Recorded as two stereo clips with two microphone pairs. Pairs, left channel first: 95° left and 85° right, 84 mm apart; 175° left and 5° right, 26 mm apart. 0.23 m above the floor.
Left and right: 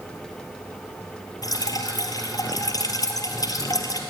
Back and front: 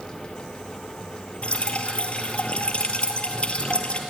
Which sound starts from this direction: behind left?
Dripping, at 1.4 s.